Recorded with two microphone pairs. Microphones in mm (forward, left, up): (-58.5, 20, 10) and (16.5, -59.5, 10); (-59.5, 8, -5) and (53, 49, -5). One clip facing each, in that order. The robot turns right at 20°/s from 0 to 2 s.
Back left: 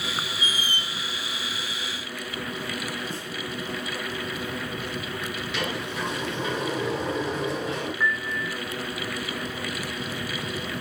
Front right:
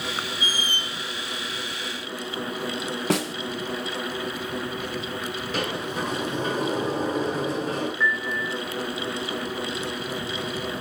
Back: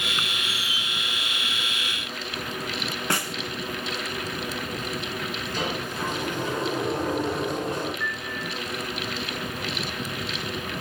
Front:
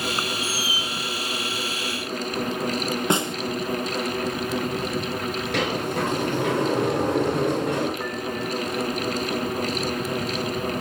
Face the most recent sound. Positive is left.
turn(degrees=55)